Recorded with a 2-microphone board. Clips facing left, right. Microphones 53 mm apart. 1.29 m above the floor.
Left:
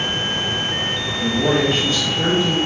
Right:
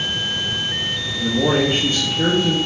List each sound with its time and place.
1.1 s a man speaking: 10° right (ahead or behind), 0.8 m